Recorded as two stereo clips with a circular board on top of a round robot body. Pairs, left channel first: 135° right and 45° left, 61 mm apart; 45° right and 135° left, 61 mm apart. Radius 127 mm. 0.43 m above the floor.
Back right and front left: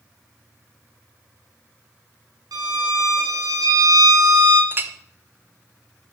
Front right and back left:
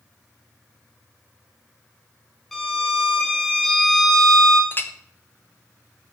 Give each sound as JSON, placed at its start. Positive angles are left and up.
{"t": 2.5, "sound": "a violin", "azimuth_deg": 40, "distance_m": 0.6}
{"t": 4.7, "sound": "a clink", "azimuth_deg": -5, "distance_m": 0.5}